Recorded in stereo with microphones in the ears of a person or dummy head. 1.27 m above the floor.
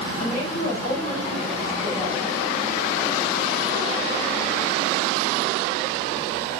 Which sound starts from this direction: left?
A woman speaking, at 0.2 s.